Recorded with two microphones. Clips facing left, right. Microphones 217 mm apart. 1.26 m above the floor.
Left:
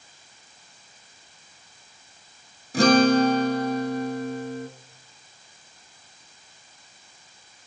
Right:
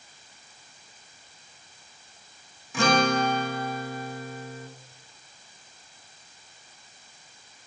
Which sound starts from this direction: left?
A guitar, at 2.7 s.